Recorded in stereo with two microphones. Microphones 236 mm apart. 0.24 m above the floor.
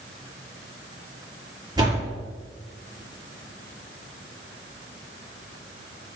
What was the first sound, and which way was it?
A door slam, 20° right (ahead or behind).